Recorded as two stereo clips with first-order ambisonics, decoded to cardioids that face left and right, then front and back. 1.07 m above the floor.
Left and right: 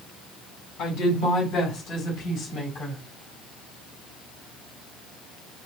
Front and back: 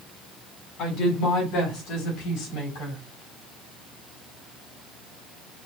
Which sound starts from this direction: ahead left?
A woman speaking, at 0.8 s.